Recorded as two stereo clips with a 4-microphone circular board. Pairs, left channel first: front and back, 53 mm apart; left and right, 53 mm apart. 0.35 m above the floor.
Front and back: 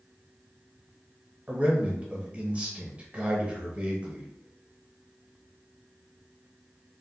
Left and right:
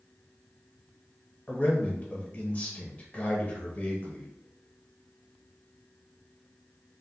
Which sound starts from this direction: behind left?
A man speaking, at 1.5 s.